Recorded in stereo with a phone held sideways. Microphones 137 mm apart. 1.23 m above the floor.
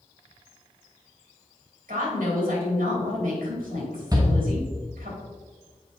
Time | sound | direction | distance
1.9 | a woman speaking | 80° right | 3.5 m
4.1 | a shout | 25° right (ahead or behind) | 1.2 m